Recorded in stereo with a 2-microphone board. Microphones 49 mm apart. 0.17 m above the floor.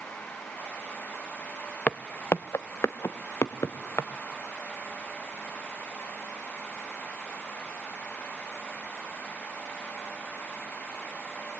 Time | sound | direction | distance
1.9 | footsteps | 30° left (ahead or behind) | 0.6 m